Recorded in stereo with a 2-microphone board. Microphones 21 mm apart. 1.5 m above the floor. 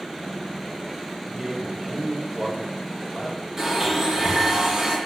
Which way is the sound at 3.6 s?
30° right (ahead or behind).